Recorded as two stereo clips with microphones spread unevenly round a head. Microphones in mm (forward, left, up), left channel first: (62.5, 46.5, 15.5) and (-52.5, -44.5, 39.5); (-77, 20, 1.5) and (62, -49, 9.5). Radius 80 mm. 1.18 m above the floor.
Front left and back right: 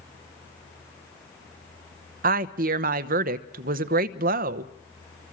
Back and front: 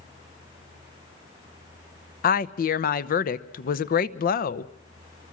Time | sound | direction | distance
2.2 | a woman speaking | 175° right | 0.9 m